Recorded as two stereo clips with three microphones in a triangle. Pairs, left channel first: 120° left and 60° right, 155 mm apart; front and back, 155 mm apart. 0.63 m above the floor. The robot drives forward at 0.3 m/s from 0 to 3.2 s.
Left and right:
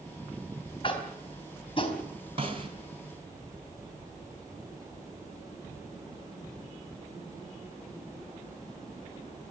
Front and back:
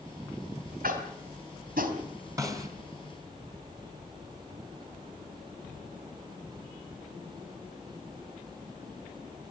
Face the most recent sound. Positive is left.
turn(degrees=-115)